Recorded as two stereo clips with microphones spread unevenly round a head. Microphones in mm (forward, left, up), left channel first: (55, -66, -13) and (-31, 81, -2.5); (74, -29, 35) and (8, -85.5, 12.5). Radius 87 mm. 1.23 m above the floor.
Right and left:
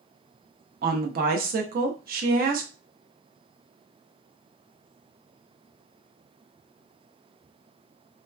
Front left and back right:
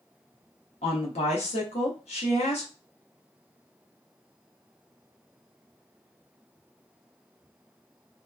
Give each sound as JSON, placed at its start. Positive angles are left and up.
{"t": 0.8, "sound": "a woman speaking", "azimuth_deg": 80, "distance_m": 0.7}